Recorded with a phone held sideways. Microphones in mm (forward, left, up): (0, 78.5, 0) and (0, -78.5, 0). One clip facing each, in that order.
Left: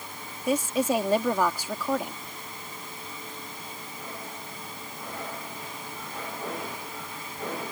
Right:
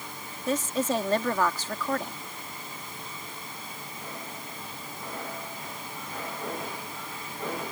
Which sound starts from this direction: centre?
A woman speaking, at 0.5 s.